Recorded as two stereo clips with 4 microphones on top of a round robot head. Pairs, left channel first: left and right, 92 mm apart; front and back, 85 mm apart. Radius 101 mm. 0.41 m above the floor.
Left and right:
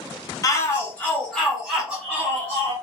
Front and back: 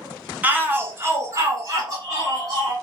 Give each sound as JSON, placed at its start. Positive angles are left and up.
{"t": 0.4, "sound": "a shout", "azimuth_deg": 120, "distance_m": 1.3}